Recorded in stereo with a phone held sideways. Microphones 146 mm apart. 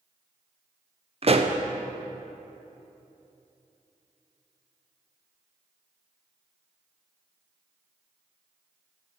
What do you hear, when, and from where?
1.2 s a pop: 45° right (ahead or behind), 0.6 m